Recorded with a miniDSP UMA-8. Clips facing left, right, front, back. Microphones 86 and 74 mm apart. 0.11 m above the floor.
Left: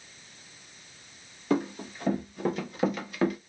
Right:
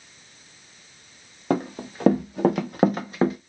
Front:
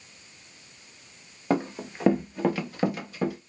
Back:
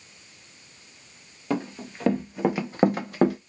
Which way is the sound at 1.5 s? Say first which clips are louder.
Right 2 dB, front 2 dB; 60° right.